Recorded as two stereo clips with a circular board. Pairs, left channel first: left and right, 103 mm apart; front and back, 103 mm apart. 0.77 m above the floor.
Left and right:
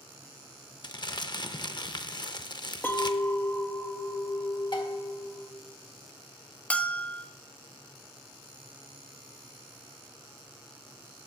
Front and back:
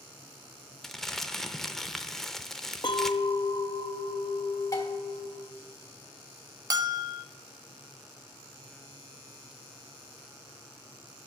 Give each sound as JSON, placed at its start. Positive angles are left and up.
{"t": 0.8, "sound": "crumpling", "azimuth_deg": 85, "distance_m": 0.5}
{"t": 2.8, "sound": "a clink", "azimuth_deg": 25, "distance_m": 0.5}
{"t": 4.7, "sound": "dishes clattering", "azimuth_deg": 55, "distance_m": 1.5}
{"t": 6.7, "sound": "a bell", "azimuth_deg": 160, "distance_m": 0.6}